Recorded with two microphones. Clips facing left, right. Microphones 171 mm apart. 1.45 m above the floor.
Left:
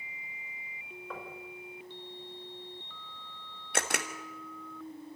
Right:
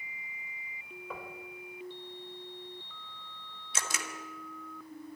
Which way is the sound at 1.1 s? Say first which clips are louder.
Even; 5° right (ahead or behind).